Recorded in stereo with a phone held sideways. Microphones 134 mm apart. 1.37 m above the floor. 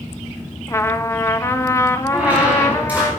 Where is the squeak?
10° right (ahead or behind), 4 m.